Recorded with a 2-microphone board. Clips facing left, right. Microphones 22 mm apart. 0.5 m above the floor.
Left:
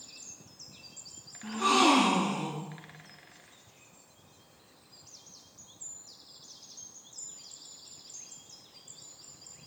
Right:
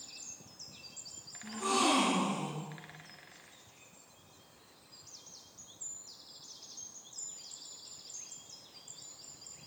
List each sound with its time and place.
1.4 s a gasp: 55° left (ahead or behind), 3 m